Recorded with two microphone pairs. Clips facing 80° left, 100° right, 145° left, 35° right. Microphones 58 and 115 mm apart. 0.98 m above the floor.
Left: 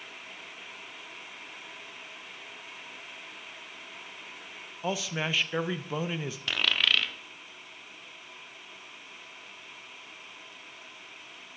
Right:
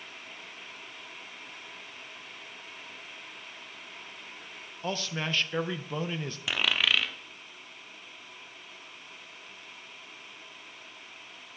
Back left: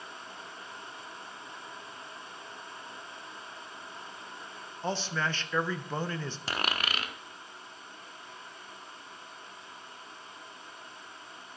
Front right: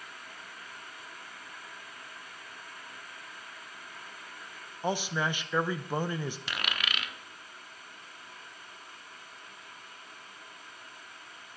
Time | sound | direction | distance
4.8 | a man speaking | 5° left | 0.6 m
6.5 | a dropped coin | 175° right | 0.6 m